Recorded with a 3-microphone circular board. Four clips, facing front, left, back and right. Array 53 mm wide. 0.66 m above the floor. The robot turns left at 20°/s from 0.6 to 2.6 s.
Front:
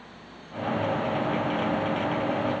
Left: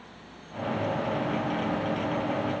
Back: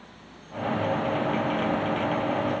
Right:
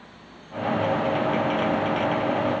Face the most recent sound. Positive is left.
No sound to turn to.